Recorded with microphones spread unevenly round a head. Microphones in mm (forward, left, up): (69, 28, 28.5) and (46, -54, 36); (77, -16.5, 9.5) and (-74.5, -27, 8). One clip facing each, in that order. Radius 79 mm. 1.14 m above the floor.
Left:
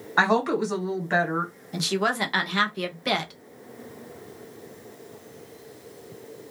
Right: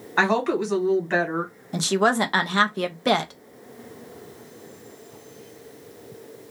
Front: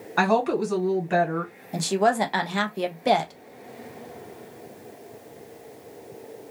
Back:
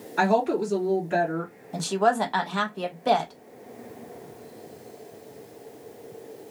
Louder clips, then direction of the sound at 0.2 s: Even, even; straight ahead.